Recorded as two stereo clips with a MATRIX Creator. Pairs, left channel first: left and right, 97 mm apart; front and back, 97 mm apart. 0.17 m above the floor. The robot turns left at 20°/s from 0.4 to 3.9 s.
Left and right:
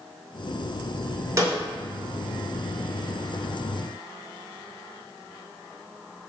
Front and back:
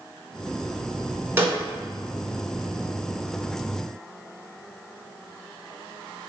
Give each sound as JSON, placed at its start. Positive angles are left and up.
{"t": 1.4, "sound": "a snare drum", "azimuth_deg": -125, "distance_m": 1.2}